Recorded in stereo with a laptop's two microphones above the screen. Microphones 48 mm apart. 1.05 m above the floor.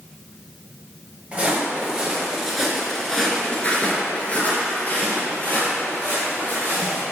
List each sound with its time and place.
1.3 s footsteps: 25° right (ahead or behind), 1.4 m; by 7.0 s 40° left (ahead or behind), 2.5 m